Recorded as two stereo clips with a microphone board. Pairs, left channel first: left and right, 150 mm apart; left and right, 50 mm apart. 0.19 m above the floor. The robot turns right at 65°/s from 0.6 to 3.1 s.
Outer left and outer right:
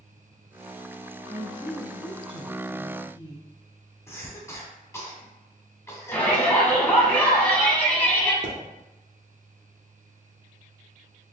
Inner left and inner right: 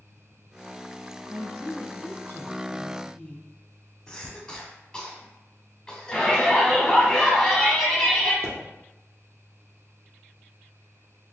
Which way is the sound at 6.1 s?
10° left (ahead or behind).